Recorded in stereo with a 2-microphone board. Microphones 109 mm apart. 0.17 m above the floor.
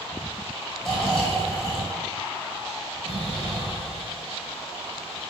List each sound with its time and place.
0.8 s snoring: centre (ahead or behind), 1.4 m